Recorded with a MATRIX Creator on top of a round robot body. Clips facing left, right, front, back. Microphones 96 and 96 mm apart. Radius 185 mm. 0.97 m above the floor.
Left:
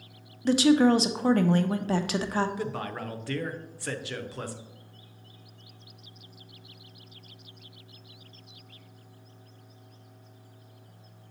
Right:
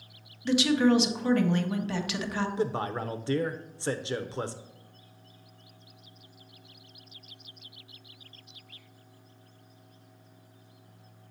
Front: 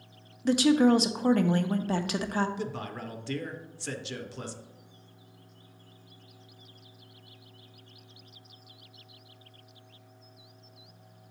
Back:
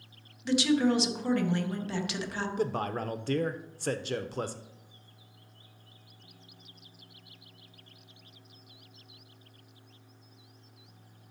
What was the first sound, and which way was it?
A woman speaking, 40° left.